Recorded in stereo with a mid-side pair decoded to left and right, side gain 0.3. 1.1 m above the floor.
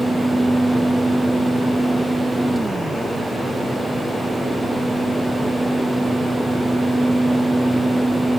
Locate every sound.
0.0 s a fan: 15° right